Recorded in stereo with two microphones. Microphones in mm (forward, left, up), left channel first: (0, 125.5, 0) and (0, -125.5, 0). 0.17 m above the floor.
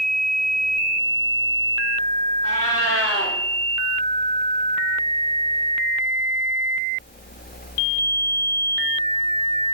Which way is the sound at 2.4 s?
65° left (ahead or behind).